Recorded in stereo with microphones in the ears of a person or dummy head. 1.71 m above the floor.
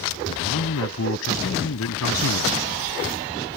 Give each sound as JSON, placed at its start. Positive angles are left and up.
{"t": 0.2, "sound": "a man speaking", "side_deg": 80}